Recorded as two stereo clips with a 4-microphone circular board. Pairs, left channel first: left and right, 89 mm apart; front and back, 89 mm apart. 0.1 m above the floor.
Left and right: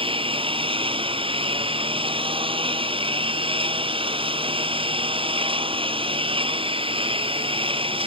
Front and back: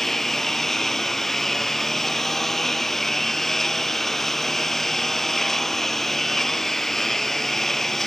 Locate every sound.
0.0 s a lawn mower: 85° right